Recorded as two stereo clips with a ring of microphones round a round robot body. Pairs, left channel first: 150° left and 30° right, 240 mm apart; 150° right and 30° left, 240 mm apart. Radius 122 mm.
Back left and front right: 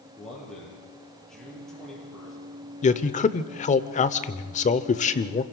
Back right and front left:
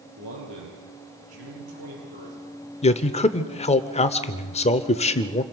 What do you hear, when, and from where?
0.2 s a man speaking: 60° left, 8.5 m
2.8 s a man speaking: 175° left, 0.9 m